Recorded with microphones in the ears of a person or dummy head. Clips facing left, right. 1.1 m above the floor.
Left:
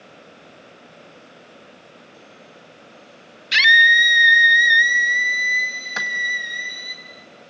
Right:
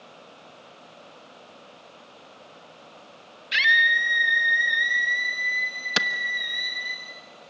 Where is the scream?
65° left (ahead or behind), 1.4 m; by 7.0 s 40° left (ahead or behind), 2.5 m.